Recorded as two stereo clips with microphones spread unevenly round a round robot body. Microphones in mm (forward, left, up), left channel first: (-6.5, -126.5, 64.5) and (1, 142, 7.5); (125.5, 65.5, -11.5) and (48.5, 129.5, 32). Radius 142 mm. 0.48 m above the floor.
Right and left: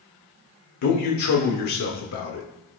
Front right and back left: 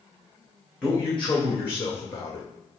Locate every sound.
0.8 s a man speaking: 110° right, 1.6 m; by 2.5 s 55° right, 1.4 m